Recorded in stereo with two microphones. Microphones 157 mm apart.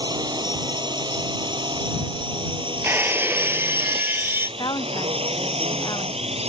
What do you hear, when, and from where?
0.0 s a drone: 25° right (ahead or behind); by 6.5 s 40° right (ahead or behind)
2.8 s breaking glass: 15° right (ahead or behind)
4.6 s a woman speaking: 25° left (ahead or behind)